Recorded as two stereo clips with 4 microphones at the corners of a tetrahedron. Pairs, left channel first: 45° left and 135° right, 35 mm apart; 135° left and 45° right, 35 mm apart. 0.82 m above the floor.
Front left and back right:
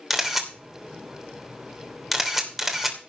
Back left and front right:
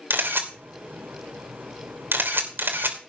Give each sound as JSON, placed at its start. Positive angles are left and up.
{"t": 0.1, "sound": "a camera shutter", "azimuth_deg": -50, "distance_m": 2.5}